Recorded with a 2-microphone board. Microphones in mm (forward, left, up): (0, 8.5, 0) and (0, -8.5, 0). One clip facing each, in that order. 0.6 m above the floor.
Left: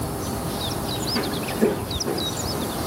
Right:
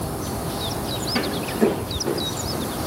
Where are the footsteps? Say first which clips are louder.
Right 2 dB; 40° right (ahead or behind), 0.7 m; by 2.7 s 50° right (ahead or behind), 1.7 m.